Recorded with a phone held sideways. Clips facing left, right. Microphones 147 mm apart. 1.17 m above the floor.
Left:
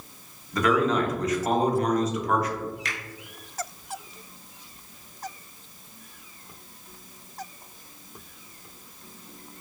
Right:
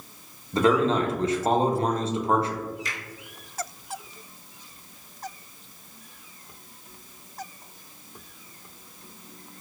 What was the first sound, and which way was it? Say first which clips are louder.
A man speaking: right 2 dB; 30° right (ahead or behind).